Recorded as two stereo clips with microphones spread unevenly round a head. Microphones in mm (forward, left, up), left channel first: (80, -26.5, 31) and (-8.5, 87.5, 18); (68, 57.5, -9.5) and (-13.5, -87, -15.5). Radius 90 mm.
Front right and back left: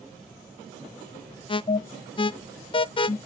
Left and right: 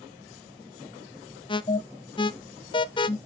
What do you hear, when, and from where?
1.5 s an alarm: straight ahead, 0.5 m